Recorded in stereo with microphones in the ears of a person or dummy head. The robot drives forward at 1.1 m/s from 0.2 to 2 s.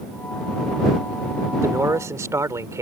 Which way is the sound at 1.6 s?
5° right (ahead or behind).